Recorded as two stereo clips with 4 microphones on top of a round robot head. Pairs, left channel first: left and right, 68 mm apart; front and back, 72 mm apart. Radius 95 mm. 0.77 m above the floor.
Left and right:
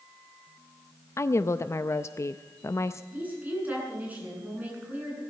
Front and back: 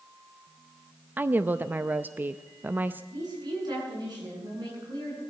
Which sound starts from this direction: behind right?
A woman speaking, at 3.1 s.